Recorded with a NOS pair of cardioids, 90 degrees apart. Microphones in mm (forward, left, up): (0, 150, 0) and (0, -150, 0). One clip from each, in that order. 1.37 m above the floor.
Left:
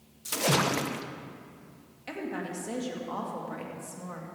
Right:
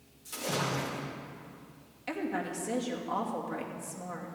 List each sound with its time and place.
0.2 s a splash: 65° left, 1.0 m
2.1 s a woman speaking: 5° right, 2.5 m